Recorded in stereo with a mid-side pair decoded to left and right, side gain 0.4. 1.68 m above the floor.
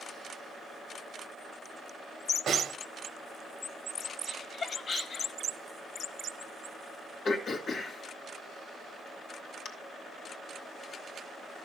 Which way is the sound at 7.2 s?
60° left.